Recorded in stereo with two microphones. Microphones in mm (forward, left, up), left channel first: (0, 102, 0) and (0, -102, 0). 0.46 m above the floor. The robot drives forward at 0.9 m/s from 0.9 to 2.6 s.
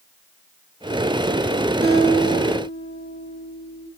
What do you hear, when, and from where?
1.8 s a guitar: 55° right (ahead or behind), 5 m; by 3.9 s 50° right (ahead or behind), 5.5 m